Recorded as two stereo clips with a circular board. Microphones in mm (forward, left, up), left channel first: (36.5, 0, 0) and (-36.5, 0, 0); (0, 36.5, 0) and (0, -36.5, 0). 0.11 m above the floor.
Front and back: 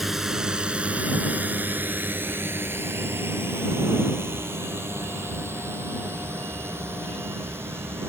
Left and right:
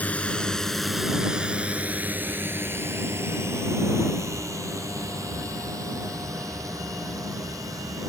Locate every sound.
0.0 s a drone: 100° left; by 8.1 s 125° right